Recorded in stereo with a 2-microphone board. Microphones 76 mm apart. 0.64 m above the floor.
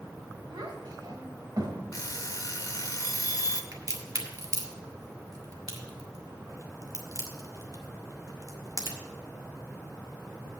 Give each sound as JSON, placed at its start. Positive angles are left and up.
{"t": 0.5, "sound": "a child speaking", "side_deg": -75, "distance_m": 1.9}
{"t": 1.9, "sound": "an alarm clock", "side_deg": 50, "distance_m": 0.8}
{"t": 3.7, "sound": "a crack", "side_deg": -50, "distance_m": 1.6}